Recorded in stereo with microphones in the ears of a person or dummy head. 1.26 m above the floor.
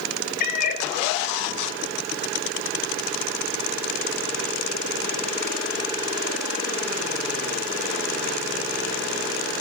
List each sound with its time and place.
0.4 s a cat meowing: 55° left (ahead or behind), 3.5 m